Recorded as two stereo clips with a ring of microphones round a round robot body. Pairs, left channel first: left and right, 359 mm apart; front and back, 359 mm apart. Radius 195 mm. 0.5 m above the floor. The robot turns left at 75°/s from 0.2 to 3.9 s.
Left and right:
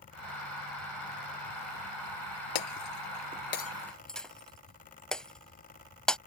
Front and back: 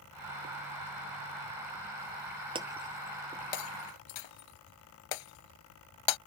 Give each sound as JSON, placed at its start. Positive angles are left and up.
{"t": 2.5, "sound": "breaking glass", "azimuth_deg": 105}